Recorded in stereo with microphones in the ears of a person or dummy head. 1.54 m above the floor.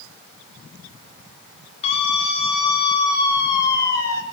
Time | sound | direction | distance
1.8 | a scream | 35° left (ahead or behind) | 8 m